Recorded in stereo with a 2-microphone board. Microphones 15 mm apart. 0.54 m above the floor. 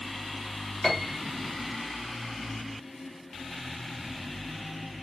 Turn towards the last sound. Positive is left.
turn(degrees=35)  # may be behind; listen again after turning